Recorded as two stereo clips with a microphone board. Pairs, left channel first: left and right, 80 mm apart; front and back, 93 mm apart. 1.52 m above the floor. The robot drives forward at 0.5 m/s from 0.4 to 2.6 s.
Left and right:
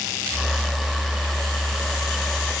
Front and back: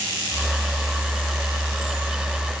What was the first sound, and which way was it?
Only background noise.